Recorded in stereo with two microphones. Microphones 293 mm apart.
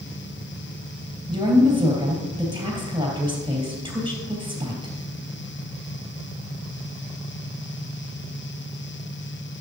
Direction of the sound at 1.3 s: 15° right (ahead or behind).